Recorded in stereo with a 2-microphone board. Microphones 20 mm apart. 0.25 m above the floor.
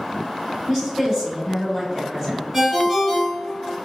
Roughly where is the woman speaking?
Right.